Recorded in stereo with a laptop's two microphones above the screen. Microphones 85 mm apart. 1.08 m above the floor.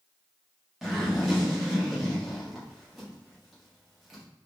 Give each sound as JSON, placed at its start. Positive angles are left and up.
{"t": 0.8, "sound": "a zipper", "side_deg": -5, "distance_m": 1.5}